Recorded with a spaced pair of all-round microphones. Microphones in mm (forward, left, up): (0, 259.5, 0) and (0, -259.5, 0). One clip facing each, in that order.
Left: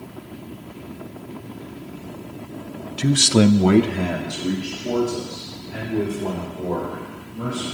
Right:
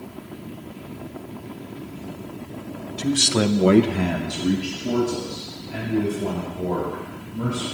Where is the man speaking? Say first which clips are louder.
Left 5 dB; 80° left, 0.8 m; by 7.6 s 45° right (ahead or behind), 5 m.